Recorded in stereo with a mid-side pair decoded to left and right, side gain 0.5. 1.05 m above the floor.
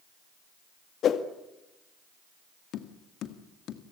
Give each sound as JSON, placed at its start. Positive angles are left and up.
{"t": 1.0, "sound": "a whoosh", "azimuth_deg": 60, "distance_m": 2.0}
{"t": 2.7, "sound": "tapping", "azimuth_deg": 65, "distance_m": 2.0}